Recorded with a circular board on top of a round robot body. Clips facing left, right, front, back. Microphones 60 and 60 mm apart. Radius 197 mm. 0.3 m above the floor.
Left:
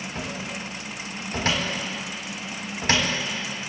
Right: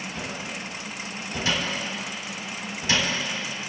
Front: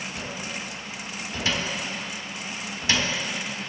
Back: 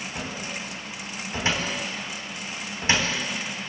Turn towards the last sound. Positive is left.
turn(degrees=120)